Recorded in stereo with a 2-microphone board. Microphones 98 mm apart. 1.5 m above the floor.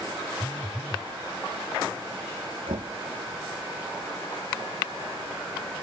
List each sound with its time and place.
0.4 s a phone buzzing: 15° right (ahead or behind)
2.7 s knocking: 75° right (ahead or behind)